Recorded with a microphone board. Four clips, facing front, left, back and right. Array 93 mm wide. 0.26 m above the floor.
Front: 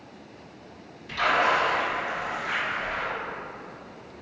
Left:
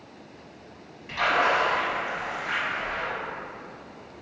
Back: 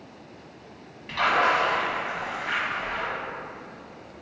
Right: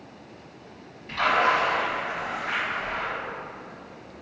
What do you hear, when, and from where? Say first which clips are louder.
1.1 s a splash: right 1 dB, back 1 dB; 165° left, 1.7 m